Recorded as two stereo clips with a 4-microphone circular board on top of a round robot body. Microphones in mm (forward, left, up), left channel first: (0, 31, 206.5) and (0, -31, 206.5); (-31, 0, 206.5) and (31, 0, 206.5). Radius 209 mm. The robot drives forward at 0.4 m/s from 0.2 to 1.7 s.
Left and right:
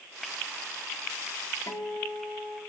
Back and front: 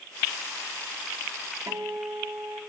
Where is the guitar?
40° left, 2.5 m.